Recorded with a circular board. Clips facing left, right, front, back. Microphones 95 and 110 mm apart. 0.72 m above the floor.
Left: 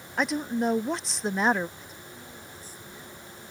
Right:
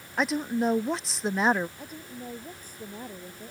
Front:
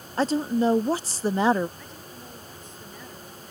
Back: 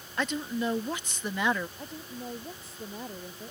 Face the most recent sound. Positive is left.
turn(degrees=-125)